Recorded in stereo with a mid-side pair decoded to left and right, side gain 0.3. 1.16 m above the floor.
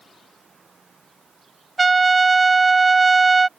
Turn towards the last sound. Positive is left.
turn(degrees=-40)